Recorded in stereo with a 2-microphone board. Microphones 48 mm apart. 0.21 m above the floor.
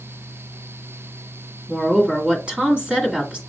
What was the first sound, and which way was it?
A woman speaking, 25° right (ahead or behind).